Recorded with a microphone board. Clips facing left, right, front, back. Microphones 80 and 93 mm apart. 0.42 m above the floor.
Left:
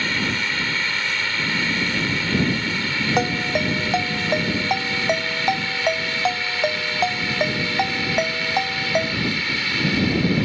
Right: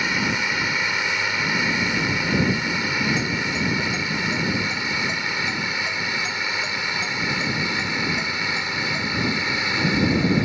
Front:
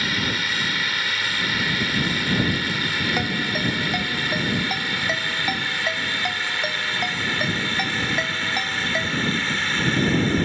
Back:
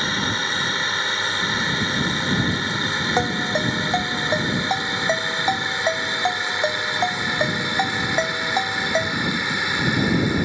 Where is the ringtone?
115° left.